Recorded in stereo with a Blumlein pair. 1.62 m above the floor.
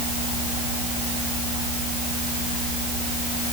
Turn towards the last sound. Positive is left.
No sound to turn to.